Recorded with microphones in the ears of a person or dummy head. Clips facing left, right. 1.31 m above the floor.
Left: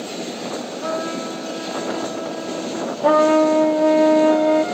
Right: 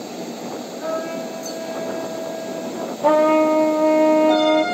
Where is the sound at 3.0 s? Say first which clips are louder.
Left 1 dB; 10° left (ahead or behind), 0.9 m.